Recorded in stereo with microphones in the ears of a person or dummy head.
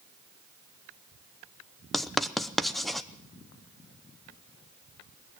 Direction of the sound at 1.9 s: 5° left (ahead or behind).